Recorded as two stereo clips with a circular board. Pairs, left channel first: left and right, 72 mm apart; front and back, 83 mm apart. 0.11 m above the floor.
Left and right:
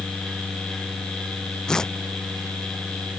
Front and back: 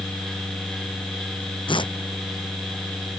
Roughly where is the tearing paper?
Ahead.